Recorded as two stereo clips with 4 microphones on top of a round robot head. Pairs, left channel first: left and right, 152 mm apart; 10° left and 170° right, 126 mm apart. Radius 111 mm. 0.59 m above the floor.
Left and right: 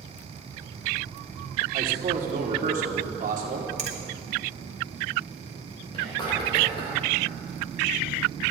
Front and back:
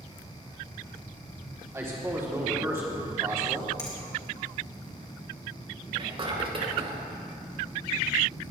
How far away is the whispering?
About 3.5 m.